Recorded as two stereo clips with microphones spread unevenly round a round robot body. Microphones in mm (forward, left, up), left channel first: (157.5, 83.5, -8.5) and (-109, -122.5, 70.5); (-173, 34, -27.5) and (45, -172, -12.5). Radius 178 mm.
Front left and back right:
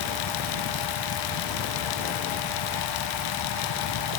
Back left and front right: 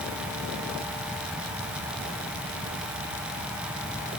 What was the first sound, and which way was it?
Only background noise.